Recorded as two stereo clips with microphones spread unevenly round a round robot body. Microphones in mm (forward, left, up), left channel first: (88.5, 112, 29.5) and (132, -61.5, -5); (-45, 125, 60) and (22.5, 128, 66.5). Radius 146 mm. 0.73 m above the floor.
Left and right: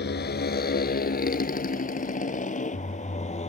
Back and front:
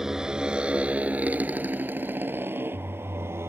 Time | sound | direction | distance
0.0 | a motorcycle | 85° left | ?